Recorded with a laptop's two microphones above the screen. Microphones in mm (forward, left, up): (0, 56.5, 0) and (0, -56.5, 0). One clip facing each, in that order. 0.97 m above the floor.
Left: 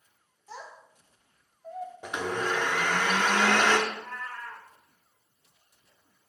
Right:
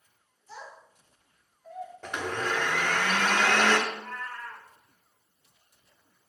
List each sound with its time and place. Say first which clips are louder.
0.5 s a child speaking: left 1 dB; 70° left (ahead or behind), 1.5 m; by 1.9 s 30° left (ahead or behind), 0.9 m
2.0 s a blender: left 1 dB; 10° left (ahead or behind), 0.6 m
3.9 s a cat meowing: even; 5° left (ahead or behind), 1.0 m